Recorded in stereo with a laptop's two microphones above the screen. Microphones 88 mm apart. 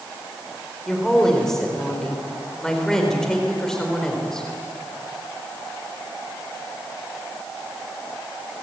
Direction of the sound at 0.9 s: 5° left (ahead or behind).